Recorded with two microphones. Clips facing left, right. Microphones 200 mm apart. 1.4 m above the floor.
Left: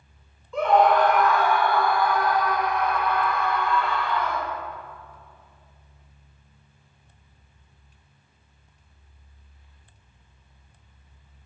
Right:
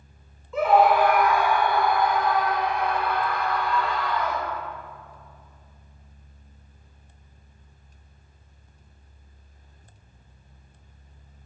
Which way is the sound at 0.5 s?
5° right (ahead or behind).